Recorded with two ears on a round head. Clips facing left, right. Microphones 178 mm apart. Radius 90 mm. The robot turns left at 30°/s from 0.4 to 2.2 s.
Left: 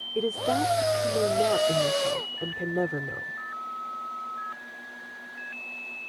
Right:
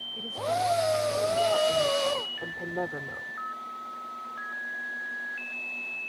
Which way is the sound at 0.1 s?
85° left.